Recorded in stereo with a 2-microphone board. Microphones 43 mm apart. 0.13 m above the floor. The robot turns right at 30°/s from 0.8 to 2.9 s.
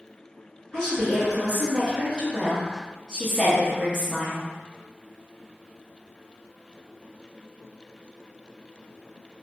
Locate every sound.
0.7 s a woman speaking: 15° left (ahead or behind), 1.8 m; by 4.5 s 10° right (ahead or behind), 1.8 m